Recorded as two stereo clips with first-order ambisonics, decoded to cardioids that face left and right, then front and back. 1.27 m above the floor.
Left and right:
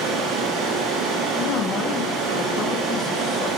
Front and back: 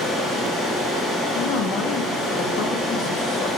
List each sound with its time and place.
0.0 s running water: 75° right, 9 m
1.3 s a woman speaking: 35° left, 2.5 m